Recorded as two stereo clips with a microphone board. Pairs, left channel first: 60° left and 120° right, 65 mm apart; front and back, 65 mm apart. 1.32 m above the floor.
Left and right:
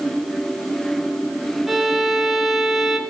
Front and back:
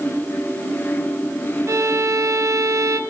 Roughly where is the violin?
Behind left.